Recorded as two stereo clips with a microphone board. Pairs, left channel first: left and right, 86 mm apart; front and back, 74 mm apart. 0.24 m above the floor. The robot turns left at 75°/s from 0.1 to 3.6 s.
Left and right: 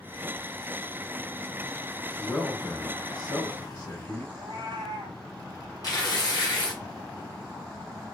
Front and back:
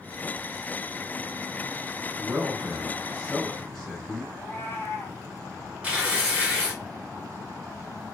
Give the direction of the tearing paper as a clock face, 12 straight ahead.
8 o'clock.